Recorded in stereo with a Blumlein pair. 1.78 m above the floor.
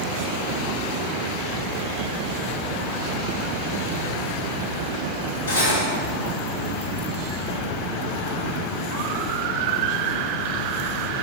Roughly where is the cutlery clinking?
Left.